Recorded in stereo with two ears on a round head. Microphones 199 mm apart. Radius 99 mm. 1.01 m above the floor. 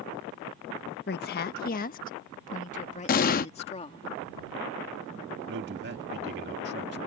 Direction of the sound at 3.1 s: 40° left (ahead or behind).